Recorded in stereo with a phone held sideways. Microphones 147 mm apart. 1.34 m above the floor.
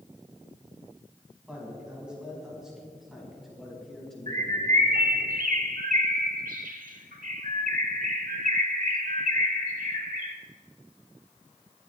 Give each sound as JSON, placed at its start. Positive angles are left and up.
{"t": 1.5, "sound": "a man speaking", "side_deg": -10, "distance_m": 6.0}
{"t": 4.3, "sound": "a bird", "side_deg": -70, "distance_m": 1.3}